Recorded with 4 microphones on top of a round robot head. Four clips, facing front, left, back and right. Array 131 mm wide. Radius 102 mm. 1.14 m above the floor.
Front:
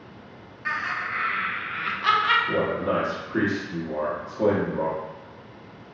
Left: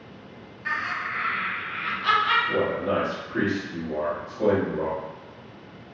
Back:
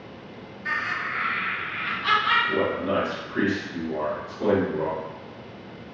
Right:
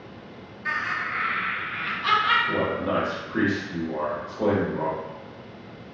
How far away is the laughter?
About 1.8 m.